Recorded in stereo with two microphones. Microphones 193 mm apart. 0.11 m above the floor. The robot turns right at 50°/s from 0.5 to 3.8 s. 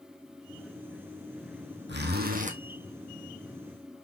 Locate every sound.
1.9 s a zipper: 70° right, 2.5 m; by 2.6 s 40° right, 2.5 m